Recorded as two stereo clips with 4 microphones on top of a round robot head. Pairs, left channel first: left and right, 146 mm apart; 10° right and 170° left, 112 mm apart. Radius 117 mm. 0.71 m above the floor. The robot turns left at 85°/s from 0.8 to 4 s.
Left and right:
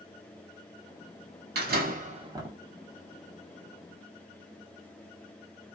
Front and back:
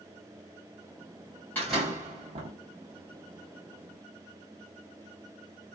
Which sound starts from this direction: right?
A door slam, at 1.6 s.